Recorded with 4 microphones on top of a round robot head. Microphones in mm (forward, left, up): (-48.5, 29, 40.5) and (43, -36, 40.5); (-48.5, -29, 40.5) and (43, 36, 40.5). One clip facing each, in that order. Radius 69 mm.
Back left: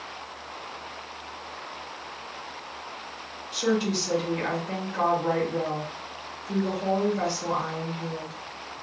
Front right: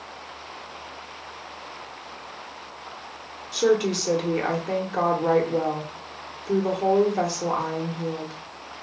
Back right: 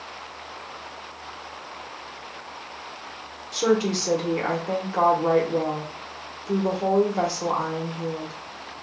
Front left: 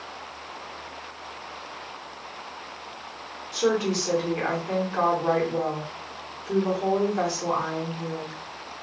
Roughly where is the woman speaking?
Right.